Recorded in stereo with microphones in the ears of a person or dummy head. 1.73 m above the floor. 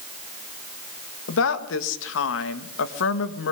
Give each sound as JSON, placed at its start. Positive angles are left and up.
{"t": 1.3, "sound": "a woman speaking", "side_deg": 70, "distance_m": 1.8}